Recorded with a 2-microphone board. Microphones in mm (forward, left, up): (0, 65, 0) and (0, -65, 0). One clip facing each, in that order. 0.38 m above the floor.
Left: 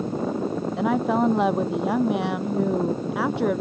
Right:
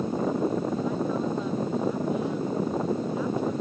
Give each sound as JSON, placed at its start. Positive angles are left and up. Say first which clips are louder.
{"t": 0.8, "sound": "a woman speaking", "louder": "left 6 dB", "side_deg": 75}